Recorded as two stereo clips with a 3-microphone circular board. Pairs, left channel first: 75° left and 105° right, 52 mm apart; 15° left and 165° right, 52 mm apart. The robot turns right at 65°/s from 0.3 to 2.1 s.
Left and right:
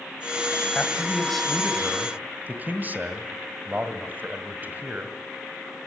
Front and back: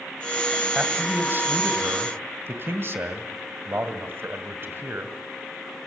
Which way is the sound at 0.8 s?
125° left.